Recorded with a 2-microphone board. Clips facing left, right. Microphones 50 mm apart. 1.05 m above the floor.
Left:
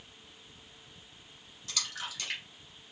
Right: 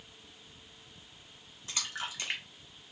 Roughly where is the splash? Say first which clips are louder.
Right 1 dB; right.